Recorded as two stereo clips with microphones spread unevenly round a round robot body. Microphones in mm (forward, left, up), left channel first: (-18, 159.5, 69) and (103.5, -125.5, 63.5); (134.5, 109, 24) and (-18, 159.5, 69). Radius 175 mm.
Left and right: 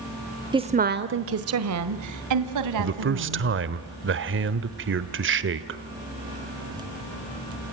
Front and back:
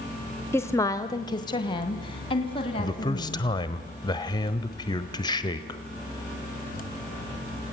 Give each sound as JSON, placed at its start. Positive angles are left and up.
{"t": 0.5, "sound": "a woman speaking", "azimuth_deg": -5, "distance_m": 1.1}
{"t": 2.8, "sound": "a man speaking", "azimuth_deg": -40, "distance_m": 1.1}